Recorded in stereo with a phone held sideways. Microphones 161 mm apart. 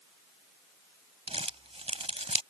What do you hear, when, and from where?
1.3 s crumpling: 45° right (ahead or behind)